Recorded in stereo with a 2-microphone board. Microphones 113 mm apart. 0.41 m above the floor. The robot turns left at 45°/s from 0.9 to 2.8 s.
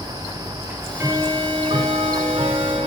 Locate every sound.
0.7 s ticking: 20° right, 0.7 m; by 2.9 s 105° right, 0.7 m